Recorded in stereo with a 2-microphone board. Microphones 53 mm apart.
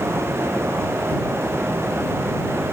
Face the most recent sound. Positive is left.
No sound to turn to.